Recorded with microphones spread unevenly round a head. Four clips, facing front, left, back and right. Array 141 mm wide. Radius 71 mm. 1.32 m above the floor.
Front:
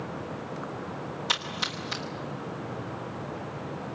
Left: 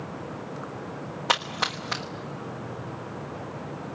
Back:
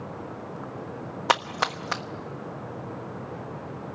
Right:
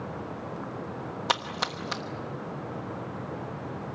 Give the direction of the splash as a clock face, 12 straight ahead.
6 o'clock.